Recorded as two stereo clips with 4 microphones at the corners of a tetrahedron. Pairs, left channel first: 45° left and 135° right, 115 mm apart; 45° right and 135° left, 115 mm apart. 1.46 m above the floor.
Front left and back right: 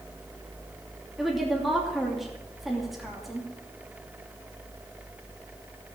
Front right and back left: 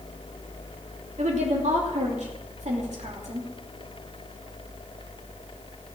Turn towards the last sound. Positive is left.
turn(degrees=135)